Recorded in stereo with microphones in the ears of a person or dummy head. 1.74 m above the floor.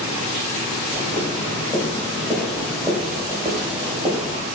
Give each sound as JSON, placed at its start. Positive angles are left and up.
{"t": 0.9, "sound": "footsteps", "side_deg": 30, "distance_m": 1.9}